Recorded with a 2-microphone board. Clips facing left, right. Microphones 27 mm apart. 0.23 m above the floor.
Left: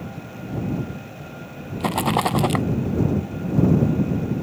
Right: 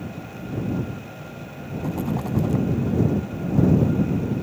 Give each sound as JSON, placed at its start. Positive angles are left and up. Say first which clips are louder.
{"t": 1.8, "sound": "a rattle", "louder": "left 7 dB", "side_deg": 75}